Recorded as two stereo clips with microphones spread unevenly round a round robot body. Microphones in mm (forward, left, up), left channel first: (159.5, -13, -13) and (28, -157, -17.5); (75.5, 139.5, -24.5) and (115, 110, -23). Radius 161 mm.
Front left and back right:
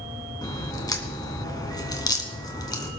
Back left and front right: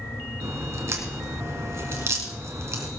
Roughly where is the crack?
Ahead right.